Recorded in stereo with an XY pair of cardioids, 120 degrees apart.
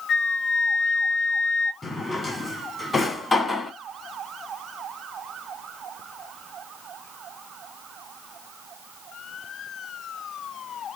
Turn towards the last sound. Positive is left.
turn(degrees=25)